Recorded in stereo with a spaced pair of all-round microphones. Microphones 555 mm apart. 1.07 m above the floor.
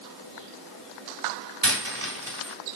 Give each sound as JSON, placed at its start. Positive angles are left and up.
{"t": 1.6, "sound": "a dropped coin", "side_deg": -25, "distance_m": 1.8}